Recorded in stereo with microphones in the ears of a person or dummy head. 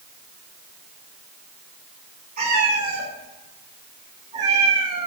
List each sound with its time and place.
2.4 s a cat meowing: 45° right (ahead or behind), 2.5 m; by 5.1 s 20° right (ahead or behind), 1.1 m